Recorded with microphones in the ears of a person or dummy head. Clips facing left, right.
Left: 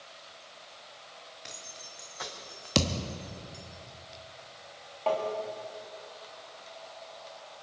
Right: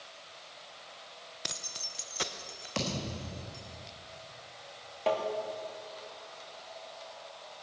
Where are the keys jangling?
65° right (ahead or behind), 0.8 m; by 3.6 s centre (ahead or behind), 1.7 m.